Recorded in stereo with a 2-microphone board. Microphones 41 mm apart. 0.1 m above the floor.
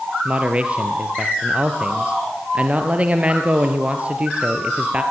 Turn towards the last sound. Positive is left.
turn(degrees=-30)  # may be behind; listen again after turning